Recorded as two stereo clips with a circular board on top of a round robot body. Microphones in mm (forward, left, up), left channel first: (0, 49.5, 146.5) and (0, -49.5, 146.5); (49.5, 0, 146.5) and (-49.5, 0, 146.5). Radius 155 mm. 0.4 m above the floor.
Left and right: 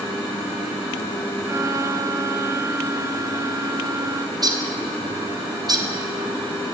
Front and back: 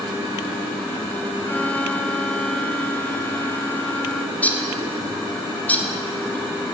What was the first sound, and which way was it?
A violin, 65° right.